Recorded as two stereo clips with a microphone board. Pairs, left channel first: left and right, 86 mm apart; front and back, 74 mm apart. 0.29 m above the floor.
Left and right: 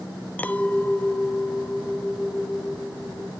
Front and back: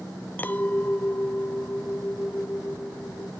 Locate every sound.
0.4 s a clink: 40° left, 0.7 m